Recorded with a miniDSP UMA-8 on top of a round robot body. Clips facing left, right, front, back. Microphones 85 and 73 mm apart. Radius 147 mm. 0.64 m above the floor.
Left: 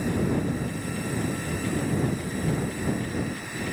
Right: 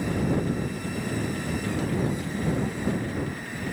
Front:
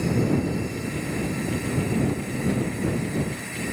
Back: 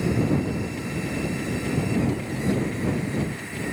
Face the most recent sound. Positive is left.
No sound to turn to.